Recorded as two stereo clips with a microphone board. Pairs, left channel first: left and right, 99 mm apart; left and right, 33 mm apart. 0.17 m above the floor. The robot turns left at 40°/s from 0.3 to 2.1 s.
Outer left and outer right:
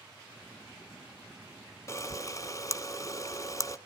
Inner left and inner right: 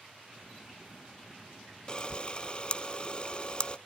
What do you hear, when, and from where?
1.9 s a camera shutter: 30° left (ahead or behind), 0.8 m; by 3.8 s 35° left (ahead or behind), 0.8 m